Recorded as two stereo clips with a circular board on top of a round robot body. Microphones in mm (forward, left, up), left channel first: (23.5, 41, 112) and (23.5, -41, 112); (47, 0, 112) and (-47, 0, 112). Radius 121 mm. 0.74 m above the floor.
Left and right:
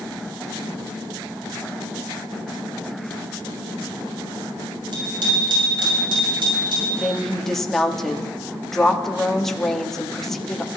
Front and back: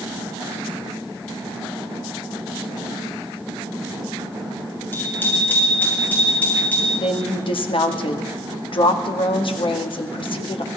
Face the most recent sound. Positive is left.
turn(degrees=5)